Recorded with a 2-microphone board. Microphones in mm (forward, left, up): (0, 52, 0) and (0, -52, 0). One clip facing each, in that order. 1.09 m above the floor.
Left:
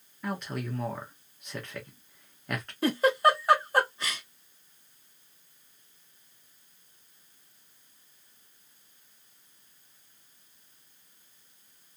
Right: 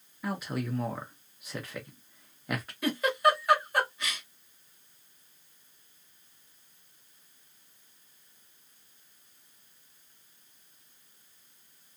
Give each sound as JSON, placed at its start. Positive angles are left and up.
{"t": 0.2, "sound": "a man speaking", "side_deg": -5, "distance_m": 0.8}
{"t": 2.8, "sound": "a giggle", "side_deg": 35, "distance_m": 0.9}